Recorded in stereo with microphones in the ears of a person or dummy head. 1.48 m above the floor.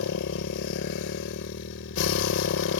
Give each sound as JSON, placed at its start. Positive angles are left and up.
{"t": 0.0, "sound": "a motorcycle", "side_deg": 60}